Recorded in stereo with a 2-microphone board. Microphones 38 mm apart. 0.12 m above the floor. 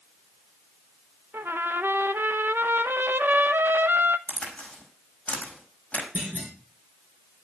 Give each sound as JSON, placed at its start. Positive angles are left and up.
{"t": 1.3, "sound": "a trumpet", "side_deg": -80, "distance_m": 0.6}
{"t": 4.3, "sound": "a crack", "side_deg": 40, "distance_m": 4.5}
{"t": 6.2, "sound": "a clunk", "side_deg": -40, "distance_m": 9.0}